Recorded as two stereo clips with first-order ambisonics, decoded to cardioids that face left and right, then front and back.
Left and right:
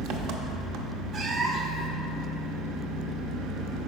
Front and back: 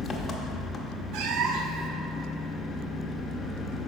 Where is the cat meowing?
150° right, 0.7 m.